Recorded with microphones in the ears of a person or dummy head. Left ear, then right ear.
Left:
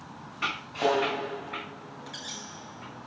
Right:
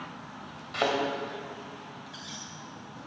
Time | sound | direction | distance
0.7 | a thud | 65° right (ahead or behind) | 2.5 m
2.1 | a squeak | 10° left (ahead or behind) | 1.3 m